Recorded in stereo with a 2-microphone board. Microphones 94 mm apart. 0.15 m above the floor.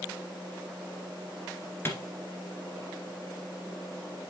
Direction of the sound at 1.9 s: 25° left (ahead or behind).